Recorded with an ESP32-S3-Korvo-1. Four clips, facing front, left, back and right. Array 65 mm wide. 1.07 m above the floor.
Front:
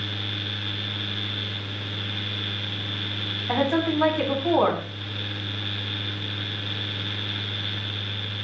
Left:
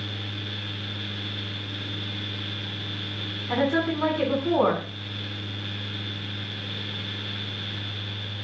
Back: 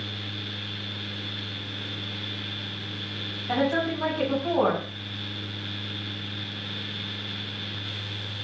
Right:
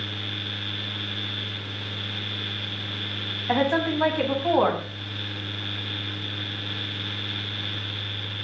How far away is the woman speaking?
About 8.5 m.